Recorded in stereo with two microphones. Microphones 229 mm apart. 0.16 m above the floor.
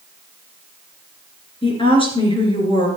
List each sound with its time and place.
1.6 s a woman speaking: 20° left (ahead or behind), 3 m